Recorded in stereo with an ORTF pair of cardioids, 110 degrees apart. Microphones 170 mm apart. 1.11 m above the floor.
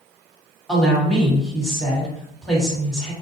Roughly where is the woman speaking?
Ahead.